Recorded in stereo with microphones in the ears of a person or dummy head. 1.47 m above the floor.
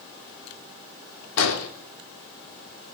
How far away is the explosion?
About 3 m.